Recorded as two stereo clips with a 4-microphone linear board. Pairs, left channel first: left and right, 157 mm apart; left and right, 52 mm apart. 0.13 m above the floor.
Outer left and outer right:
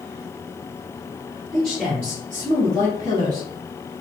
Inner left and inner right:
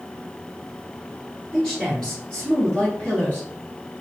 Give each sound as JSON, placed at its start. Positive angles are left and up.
{"t": 1.5, "sound": "a man speaking", "side_deg": 0, "distance_m": 1.8}